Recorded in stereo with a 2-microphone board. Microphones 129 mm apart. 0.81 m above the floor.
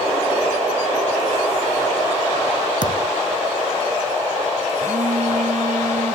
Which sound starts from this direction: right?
A phone buzzing, at 4.8 s.